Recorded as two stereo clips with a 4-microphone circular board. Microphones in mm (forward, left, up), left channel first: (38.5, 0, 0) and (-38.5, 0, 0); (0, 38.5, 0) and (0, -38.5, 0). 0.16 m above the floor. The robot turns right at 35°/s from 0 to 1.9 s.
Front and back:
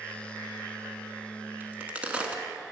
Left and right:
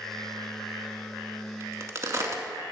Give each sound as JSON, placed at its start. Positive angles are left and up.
{"t": 1.6, "sound": "a crack", "azimuth_deg": -125, "distance_m": 0.7}